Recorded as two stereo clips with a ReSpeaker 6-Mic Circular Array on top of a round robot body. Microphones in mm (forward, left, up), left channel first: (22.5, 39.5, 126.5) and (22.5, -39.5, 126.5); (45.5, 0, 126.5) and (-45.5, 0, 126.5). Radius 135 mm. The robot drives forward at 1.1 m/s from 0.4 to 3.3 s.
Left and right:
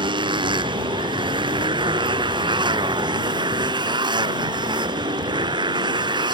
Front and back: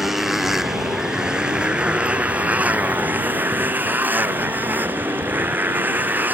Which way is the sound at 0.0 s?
95° right.